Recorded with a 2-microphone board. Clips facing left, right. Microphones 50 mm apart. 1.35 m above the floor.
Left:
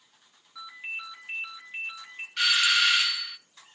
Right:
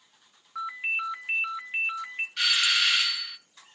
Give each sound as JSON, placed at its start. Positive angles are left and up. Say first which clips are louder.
{"t": 0.6, "sound": "a ringtone", "louder": "right 8 dB", "side_deg": -55, "distance_m": 1.0}
{"t": 2.4, "sound": "a doorbell", "louder": "left 2 dB", "side_deg": 15, "distance_m": 0.7}